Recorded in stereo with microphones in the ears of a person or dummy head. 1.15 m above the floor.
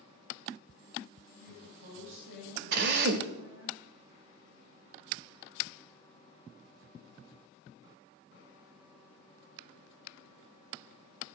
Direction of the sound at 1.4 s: 60° right (ahead or behind).